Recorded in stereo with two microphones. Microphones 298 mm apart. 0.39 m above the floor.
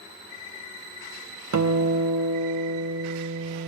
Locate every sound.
1.5 s a guitar: 70° right (ahead or behind), 0.5 m